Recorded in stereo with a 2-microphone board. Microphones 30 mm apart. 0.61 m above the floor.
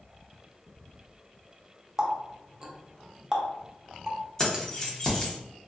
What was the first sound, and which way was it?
A running tap, 20° right (ahead or behind).